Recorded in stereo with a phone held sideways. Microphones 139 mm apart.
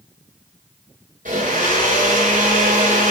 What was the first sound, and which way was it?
A blender, 75° right (ahead or behind).